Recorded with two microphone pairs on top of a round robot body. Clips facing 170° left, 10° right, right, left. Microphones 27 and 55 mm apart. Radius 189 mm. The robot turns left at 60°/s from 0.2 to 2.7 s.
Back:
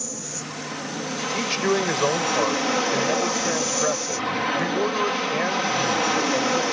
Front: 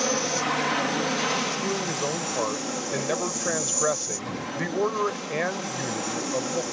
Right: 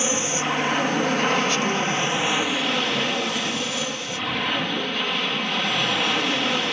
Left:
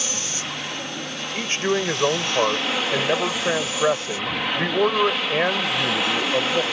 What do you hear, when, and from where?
0.0 s an aircraft: 30° right; by 6.7 s straight behind
1.3 s a man speaking: 155° left; by 6.6 s 75° left